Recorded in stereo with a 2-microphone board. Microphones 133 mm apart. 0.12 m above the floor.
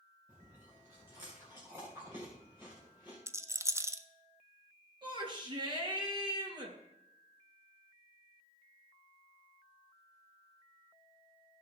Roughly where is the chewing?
Centre.